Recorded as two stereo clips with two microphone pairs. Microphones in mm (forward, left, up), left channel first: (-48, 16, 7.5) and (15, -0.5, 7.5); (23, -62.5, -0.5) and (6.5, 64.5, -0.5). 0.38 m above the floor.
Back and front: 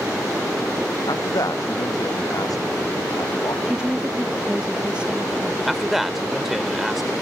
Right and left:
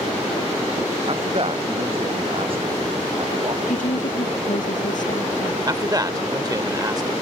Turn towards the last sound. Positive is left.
turn(degrees=70)